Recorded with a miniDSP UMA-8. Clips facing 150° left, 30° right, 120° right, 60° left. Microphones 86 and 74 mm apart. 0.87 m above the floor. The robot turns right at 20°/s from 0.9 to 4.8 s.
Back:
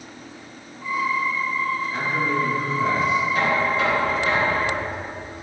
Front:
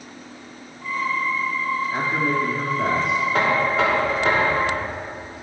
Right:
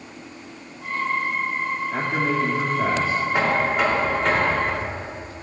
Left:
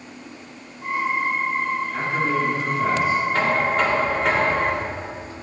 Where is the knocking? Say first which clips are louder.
Front 1 dB, even; 45° right, 2.5 m; by 4.9 s 15° right, 2.5 m.